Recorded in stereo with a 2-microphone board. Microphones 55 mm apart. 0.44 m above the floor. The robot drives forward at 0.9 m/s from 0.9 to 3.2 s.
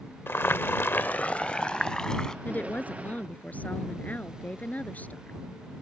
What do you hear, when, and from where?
0.3 s boiling: 40° left (ahead or behind); by 2.4 s 10° left (ahead or behind)
2.5 s a woman speaking: 30° left (ahead or behind)